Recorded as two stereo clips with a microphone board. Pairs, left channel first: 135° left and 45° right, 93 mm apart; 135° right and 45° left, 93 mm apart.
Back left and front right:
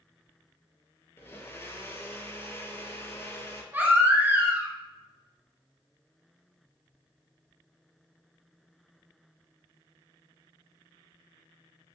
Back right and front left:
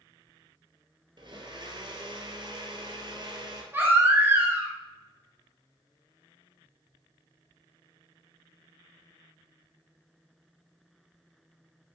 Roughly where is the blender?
Left.